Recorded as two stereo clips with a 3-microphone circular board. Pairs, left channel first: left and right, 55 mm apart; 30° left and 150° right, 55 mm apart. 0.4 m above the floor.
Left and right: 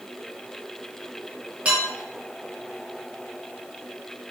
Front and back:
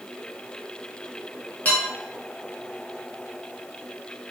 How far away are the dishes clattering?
About 1.6 m.